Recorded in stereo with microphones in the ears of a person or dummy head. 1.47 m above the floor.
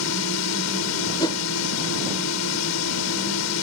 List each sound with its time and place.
0.0 s a drone: 80° left
1.2 s a whoosh: 20° left (ahead or behind)